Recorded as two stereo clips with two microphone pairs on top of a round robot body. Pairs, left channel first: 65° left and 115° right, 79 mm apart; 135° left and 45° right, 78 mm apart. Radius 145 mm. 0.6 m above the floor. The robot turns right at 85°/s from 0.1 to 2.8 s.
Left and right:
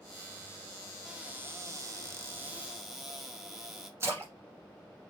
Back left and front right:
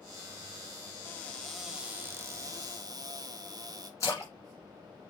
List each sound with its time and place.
1.1 s a cupboard door: 170° left, 1.1 m; by 3.9 s 40° right, 1.1 m
4.0 s a splash: 175° right, 1.6 m